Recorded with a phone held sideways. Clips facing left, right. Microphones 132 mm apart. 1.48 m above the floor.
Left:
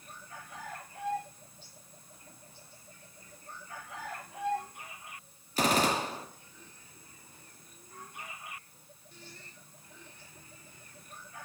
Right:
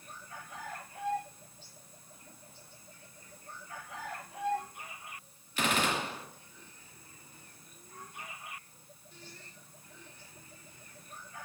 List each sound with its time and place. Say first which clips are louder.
5.6 s a gunshot: left 4 dB; 35° left (ahead or behind), 0.6 m